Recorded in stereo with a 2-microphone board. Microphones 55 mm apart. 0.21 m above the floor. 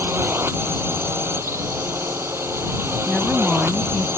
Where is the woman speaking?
25° left (ahead or behind).